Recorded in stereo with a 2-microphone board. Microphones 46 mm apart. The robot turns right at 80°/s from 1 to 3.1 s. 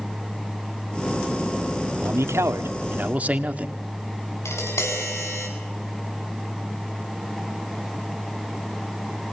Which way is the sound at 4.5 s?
80° left.